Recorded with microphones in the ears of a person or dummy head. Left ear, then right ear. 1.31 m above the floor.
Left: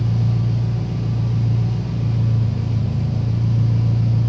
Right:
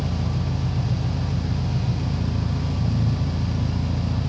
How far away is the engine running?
About 0.8 m.